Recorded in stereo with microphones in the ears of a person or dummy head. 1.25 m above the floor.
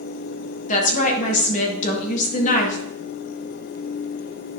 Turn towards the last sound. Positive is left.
turn(degrees=40)  # may be behind; listen again after turning